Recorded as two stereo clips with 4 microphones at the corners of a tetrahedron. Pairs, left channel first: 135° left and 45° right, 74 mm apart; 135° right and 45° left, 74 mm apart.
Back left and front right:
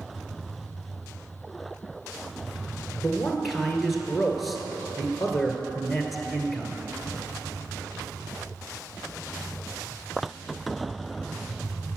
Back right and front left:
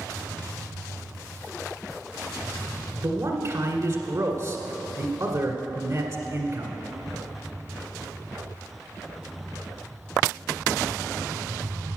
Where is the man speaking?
45° left, 1.5 m.